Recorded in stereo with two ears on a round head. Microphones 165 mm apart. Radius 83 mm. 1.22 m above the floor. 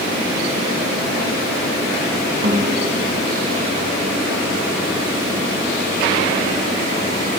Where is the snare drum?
55° right (ahead or behind), 3.5 m.